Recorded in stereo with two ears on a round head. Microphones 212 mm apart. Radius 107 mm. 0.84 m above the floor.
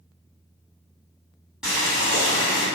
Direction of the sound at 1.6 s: Centre (ahead or behind).